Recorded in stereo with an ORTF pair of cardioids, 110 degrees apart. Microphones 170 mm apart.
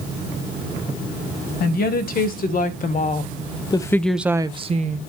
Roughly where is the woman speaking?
Ahead left.